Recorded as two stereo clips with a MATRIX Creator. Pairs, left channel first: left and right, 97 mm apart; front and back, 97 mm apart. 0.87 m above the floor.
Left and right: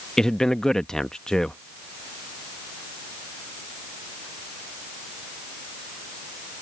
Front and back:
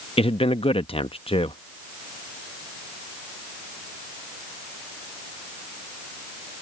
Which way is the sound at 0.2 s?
5° left.